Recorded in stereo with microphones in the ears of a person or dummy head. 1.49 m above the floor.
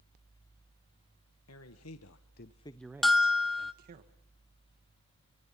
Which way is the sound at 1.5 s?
85° left.